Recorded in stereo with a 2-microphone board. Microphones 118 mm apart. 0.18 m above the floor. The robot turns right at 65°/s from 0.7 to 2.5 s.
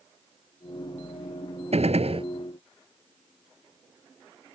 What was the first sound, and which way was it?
A gunshot, 95° right.